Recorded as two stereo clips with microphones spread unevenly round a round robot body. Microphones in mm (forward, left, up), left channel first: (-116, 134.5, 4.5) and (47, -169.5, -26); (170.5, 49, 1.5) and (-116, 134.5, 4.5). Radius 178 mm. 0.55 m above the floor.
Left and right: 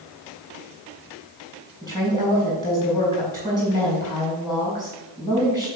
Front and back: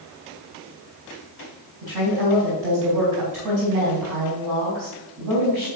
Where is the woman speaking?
160° right, 4 m.